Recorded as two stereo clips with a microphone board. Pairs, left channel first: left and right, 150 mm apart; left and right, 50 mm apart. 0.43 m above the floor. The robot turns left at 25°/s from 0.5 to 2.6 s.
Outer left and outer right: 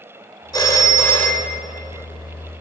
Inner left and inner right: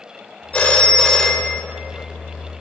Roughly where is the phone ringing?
Left.